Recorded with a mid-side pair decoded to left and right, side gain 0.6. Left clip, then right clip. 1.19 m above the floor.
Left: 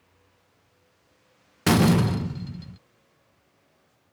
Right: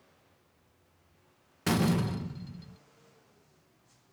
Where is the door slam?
45° left.